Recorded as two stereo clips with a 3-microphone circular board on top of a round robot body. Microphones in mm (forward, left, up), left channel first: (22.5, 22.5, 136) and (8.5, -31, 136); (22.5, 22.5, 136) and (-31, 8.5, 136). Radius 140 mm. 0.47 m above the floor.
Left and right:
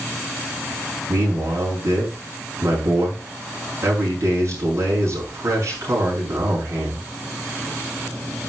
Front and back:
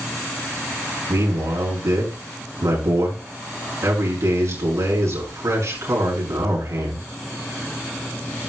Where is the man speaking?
140° right, 5.5 m.